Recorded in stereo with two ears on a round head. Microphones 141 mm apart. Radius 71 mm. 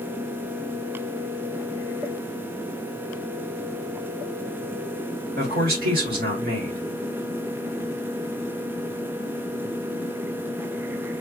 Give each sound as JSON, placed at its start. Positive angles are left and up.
{"t": 5.4, "sound": "a man speaking", "side_deg": -65, "distance_m": 2.0}